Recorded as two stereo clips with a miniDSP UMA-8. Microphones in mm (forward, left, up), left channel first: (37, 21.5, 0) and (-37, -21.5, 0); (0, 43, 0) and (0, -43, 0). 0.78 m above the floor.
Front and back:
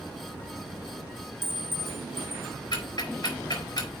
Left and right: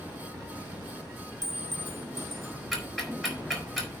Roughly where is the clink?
Ahead right.